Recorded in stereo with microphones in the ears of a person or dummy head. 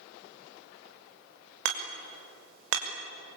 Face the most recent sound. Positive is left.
turn(degrees=-70)  # may be behind; listen again after turning